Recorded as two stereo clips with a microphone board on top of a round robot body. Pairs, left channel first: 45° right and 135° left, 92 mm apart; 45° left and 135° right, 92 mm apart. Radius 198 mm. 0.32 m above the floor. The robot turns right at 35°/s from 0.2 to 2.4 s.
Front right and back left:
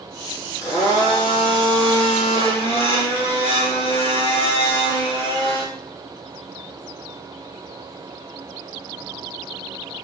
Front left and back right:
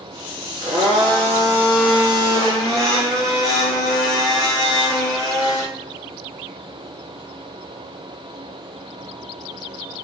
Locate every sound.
0.6 s a blender: 105° right, 5 m; by 5.6 s 40° right, 5 m